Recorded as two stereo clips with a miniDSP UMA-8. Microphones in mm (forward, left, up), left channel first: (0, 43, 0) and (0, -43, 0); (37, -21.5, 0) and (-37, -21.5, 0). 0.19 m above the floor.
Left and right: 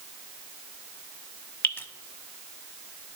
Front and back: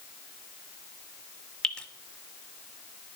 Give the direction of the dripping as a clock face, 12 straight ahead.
10 o'clock.